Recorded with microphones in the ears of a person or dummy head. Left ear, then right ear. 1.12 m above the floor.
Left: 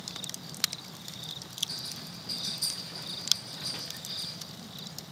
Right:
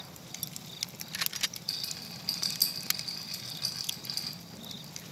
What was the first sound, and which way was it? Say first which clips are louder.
A rattle: right 2 dB; 70° right (ahead or behind).